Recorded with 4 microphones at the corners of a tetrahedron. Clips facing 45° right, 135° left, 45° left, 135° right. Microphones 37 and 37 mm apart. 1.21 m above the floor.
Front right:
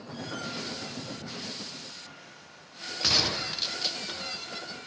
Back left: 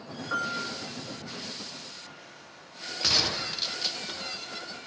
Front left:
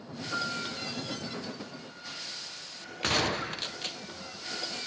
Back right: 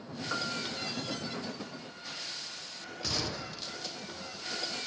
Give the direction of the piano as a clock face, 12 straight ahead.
6 o'clock.